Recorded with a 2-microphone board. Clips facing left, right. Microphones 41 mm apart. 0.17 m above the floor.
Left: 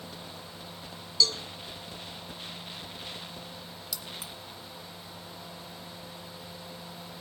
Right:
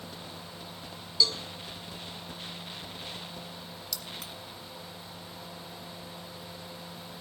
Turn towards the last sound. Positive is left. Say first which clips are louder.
# even
turn(degrees=10)  # may be behind; listen again after turning